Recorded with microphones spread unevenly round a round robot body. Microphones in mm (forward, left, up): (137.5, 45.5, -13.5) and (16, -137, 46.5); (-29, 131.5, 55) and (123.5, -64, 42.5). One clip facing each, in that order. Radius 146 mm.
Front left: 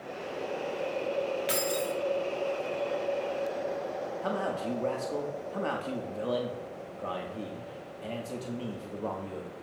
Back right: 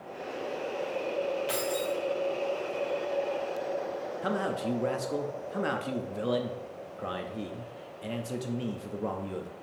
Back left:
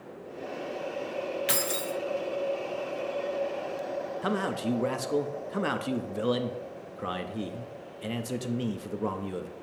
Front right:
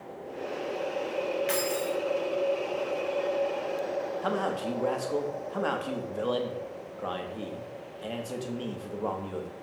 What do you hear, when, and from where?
1.5 s keys jangling: 105° left, 0.7 m
4.2 s a man speaking: 150° left, 0.6 m